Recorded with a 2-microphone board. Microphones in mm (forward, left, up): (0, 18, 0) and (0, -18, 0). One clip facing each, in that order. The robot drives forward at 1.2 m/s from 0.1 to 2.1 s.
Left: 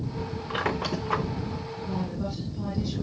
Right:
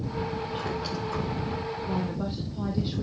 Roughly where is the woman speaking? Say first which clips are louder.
Left 1 dB; right.